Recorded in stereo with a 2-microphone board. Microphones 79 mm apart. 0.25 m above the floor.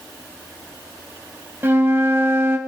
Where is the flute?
30° right (ahead or behind), 0.7 m.